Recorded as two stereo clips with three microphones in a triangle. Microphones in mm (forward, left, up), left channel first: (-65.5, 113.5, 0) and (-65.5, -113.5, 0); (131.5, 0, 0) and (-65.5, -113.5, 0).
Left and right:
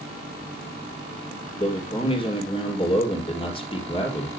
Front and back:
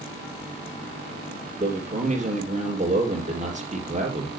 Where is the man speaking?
155° left, 3 m.